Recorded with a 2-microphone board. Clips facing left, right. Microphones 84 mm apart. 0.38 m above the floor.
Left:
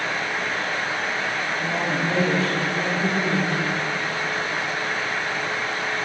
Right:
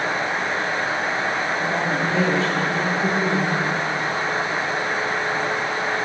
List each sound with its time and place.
1.6 s a woman speaking: 5° left (ahead or behind), 9 m